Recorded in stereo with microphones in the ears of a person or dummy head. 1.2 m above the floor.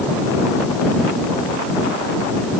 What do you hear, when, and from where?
Only background noise.